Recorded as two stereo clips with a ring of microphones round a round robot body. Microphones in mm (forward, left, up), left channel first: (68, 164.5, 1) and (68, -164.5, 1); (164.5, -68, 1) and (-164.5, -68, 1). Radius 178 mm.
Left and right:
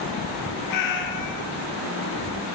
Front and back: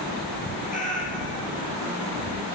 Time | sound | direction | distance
0.7 | a cat meowing | 70° left | 1.7 m